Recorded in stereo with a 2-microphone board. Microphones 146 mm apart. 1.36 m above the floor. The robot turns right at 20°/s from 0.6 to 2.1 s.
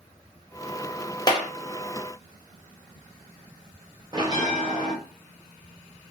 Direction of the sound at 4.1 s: 30° right (ahead or behind).